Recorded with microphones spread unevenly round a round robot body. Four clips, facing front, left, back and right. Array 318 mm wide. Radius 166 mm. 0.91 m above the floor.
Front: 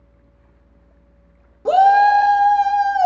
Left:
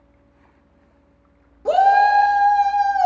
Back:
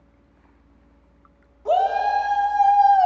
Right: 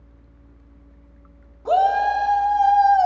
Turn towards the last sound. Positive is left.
turn(degrees=0)